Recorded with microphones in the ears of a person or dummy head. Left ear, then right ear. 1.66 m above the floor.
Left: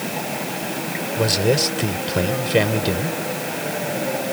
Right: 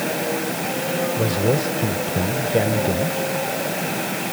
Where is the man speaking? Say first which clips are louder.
Left 6 dB; 35° left (ahead or behind); by 3.2 s 55° left (ahead or behind).